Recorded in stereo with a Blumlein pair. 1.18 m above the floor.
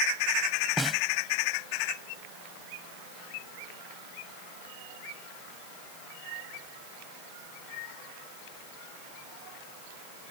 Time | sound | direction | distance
0.8 | a snare drum | 5° right | ?